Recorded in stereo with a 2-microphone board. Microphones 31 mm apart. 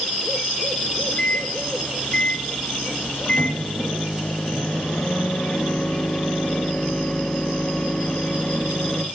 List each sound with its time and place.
0.8 s a microwave: 50° left (ahead or behind), 2.5 m